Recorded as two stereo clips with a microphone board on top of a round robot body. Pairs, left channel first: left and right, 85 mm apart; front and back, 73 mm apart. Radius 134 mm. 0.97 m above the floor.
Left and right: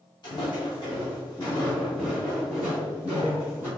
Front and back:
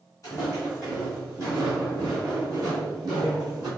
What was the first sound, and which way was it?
Footsteps, 55° left.